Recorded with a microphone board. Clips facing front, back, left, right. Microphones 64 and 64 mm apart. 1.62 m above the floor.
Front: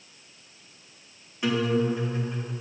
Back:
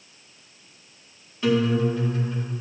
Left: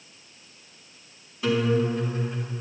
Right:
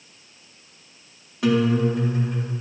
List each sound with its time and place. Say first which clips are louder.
1.4 s a guitar: back 3 dB, right 3 dB; 75° right, 4 m